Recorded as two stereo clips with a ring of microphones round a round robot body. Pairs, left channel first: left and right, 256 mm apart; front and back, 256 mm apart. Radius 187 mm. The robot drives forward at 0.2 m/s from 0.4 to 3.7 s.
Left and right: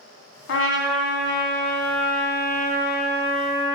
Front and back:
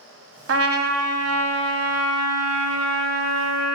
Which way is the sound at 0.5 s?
145° left.